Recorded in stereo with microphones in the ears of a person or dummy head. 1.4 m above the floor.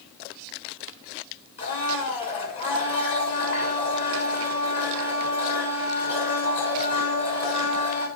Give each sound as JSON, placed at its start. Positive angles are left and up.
{"t": 1.6, "sound": "a blender", "side_deg": 30, "distance_m": 2.0}